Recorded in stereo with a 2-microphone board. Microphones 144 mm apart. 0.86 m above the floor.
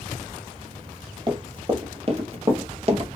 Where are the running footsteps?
35° right (ahead or behind), 1.5 m; by 3.1 s 40° right (ahead or behind), 1.0 m.